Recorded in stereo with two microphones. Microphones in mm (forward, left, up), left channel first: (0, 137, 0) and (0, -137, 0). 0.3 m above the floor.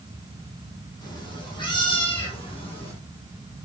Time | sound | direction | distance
1.0 | a cat meowing | 15° left (ahead or behind) | 4.5 m